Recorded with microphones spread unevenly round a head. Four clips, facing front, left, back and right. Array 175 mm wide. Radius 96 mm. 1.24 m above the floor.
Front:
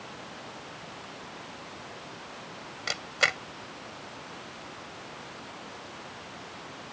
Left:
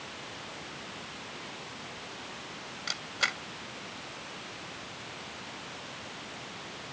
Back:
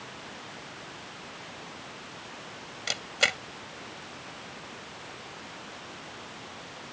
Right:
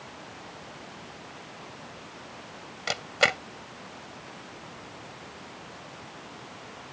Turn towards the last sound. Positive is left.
turn(degrees=-90)